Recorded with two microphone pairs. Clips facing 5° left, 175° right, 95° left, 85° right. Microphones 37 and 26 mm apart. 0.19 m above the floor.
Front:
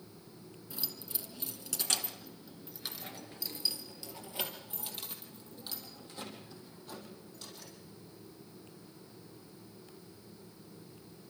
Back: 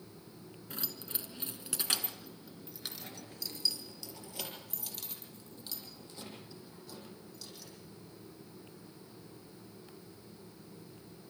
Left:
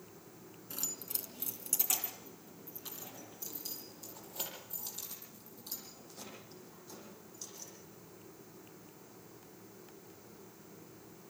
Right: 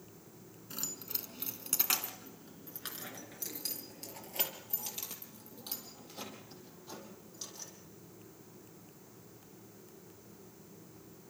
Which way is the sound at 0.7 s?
160° right.